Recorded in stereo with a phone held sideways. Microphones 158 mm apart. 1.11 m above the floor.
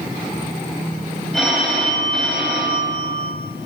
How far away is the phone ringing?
About 4 m.